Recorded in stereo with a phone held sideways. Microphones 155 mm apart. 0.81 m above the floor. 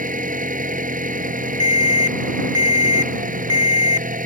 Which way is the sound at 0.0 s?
60° right (ahead or behind).